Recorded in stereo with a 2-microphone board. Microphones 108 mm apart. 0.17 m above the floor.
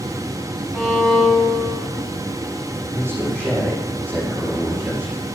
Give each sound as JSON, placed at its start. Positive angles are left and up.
{"t": 0.7, "sound": "a violin", "side_deg": -10, "distance_m": 7.5}
{"t": 2.9, "sound": "a man speaking", "side_deg": -25, "distance_m": 6.5}